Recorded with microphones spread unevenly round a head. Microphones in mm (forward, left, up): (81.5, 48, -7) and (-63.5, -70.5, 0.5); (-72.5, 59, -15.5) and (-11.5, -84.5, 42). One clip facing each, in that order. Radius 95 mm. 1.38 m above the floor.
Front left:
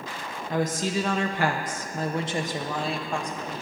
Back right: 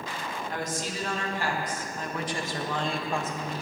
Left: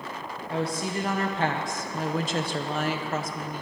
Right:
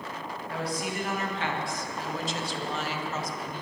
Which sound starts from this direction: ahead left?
A woman speaking, at 0.5 s.